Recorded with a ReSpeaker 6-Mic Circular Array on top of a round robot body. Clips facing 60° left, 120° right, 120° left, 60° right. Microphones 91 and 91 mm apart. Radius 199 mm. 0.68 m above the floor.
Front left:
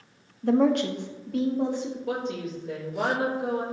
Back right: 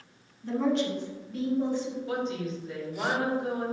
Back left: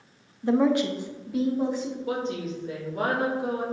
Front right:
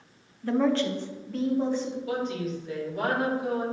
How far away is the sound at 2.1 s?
About 3 m.